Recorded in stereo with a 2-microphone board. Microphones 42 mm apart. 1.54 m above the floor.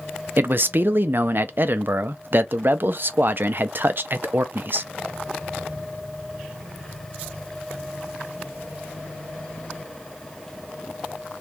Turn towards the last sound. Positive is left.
turn(degrees=-55)  # may be behind; listen again after turning